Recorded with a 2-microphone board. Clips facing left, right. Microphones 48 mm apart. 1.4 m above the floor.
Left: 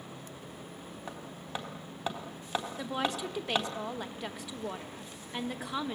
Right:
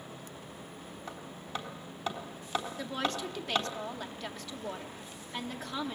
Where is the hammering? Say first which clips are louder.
Even; 20° left (ahead or behind), 3.5 m.